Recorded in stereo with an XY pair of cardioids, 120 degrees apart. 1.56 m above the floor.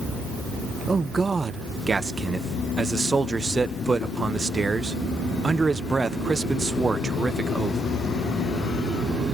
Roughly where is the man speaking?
Ahead right.